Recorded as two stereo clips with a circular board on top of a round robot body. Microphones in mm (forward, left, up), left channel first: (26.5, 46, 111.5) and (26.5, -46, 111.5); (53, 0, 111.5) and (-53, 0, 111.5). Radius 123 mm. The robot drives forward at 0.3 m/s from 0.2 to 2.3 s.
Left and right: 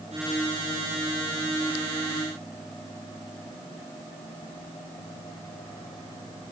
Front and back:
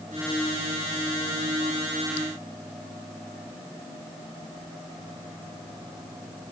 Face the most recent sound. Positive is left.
No sound to turn to.